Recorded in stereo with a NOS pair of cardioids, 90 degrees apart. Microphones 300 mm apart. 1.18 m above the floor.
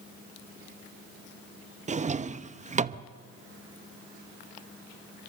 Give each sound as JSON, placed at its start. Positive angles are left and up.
{"t": 1.9, "sound": "a drawer", "azimuth_deg": -25, "distance_m": 0.8}